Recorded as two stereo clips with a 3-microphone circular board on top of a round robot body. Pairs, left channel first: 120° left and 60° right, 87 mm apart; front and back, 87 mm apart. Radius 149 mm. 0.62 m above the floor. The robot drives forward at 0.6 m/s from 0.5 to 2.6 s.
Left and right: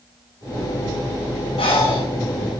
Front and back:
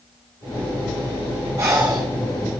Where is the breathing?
120° left, 3.5 m.